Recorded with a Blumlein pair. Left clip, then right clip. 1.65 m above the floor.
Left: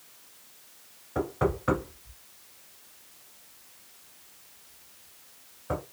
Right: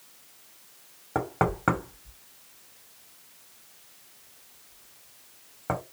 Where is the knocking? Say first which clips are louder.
Right 2 dB; 50° right, 1.3 m.